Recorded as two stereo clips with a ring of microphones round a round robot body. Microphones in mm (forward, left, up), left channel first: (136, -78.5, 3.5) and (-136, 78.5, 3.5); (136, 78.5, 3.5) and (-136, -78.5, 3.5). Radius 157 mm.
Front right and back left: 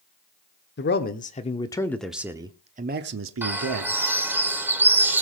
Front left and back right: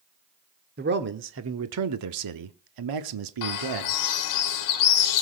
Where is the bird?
65° left, 1.1 m.